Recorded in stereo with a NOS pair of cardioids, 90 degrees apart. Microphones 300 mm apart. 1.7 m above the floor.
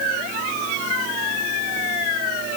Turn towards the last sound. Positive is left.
No sound to turn to.